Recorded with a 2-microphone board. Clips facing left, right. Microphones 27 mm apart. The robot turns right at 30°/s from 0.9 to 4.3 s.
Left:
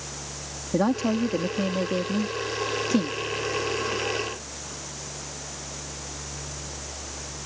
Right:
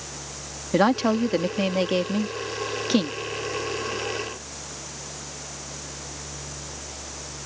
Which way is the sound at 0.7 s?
115° right.